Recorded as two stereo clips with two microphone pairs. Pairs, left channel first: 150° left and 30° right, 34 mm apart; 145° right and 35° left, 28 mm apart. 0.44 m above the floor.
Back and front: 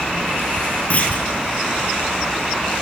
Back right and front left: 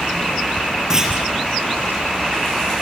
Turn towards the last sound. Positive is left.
turn(degrees=105)